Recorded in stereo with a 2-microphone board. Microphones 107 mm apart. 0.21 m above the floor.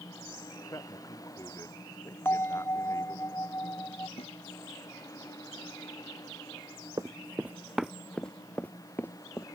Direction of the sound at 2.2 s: 25° left (ahead or behind).